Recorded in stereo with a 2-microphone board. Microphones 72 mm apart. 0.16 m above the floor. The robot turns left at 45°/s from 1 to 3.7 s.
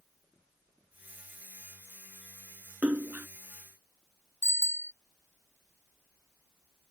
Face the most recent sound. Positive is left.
turn(degrees=40)  # may be behind; listen again after turning